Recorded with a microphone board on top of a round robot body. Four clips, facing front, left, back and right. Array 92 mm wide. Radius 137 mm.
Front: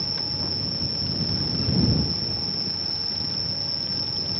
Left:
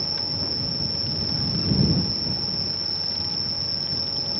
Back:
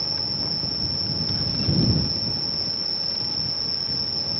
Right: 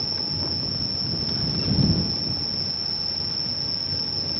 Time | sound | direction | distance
0.0 | an insect | 95° left | ?